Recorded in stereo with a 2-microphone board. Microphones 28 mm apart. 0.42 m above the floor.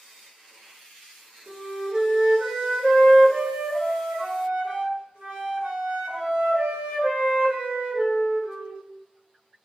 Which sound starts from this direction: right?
A flute, at 1.5 s.